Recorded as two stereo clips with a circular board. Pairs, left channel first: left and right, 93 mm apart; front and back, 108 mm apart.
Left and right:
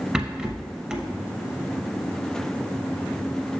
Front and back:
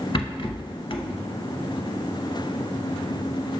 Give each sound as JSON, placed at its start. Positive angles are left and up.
{"t": 0.1, "sound": "a rattle", "azimuth_deg": -10, "distance_m": 0.7}